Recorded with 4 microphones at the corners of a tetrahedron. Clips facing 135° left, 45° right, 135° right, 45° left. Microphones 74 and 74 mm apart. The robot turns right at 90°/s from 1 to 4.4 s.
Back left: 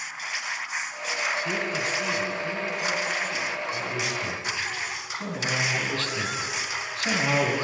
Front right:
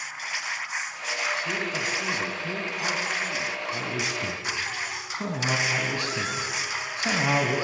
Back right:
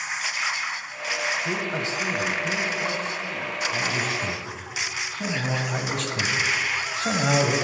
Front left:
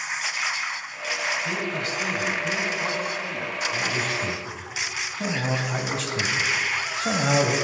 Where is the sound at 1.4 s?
165° right, 1.2 m; by 3.6 s 25° left, 1.2 m.